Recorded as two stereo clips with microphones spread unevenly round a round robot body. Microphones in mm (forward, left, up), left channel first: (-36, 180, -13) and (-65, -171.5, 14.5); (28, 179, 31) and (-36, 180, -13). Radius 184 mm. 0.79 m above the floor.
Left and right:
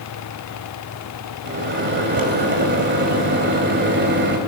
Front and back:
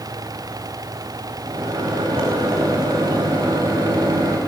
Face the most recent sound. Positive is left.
turn(degrees=-155)